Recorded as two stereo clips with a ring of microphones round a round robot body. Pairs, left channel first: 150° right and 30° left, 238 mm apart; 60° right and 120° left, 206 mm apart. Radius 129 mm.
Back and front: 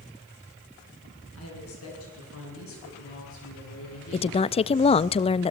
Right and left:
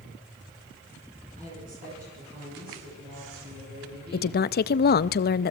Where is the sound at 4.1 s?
90° right, 0.6 m.